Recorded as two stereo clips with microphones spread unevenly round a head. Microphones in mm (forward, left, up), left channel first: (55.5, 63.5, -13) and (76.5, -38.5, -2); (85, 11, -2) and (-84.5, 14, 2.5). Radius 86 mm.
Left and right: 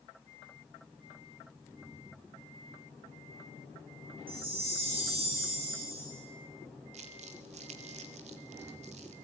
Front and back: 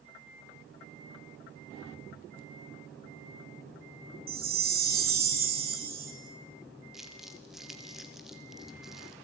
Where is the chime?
140° right, 3.5 m.